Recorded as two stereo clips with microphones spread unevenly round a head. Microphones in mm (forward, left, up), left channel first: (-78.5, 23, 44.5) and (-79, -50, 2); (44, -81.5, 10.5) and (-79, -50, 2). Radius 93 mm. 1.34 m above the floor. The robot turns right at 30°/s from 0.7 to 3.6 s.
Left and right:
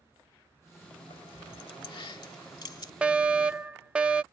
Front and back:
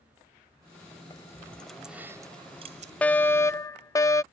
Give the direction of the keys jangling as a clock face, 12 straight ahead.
10 o'clock.